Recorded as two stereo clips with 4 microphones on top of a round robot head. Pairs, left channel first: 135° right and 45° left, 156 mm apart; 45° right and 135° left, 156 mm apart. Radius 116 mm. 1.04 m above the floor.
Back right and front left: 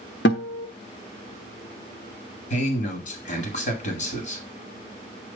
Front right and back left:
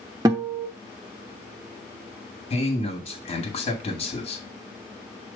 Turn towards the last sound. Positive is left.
turn(degrees=-105)